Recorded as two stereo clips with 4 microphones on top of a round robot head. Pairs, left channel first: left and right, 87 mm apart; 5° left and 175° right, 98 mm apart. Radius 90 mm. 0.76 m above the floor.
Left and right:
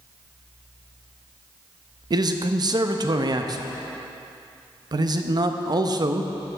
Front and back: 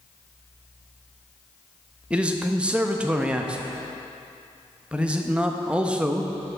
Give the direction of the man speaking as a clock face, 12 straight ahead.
3 o'clock.